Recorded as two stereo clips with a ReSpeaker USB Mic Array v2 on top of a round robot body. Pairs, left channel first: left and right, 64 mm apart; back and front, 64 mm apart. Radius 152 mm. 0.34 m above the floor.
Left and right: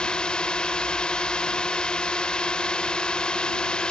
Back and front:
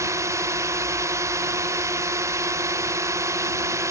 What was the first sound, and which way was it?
A drone, 20° left.